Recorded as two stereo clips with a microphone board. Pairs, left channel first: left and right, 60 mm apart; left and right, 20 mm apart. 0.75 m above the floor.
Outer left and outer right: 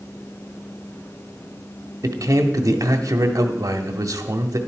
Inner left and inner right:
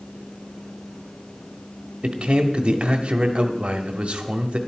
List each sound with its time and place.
2.0 s a man speaking: 75° right (ahead or behind), 1.4 m